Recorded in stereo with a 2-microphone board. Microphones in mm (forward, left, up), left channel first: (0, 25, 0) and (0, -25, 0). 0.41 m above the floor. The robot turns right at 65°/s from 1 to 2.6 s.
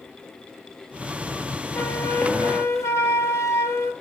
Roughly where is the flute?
Ahead left.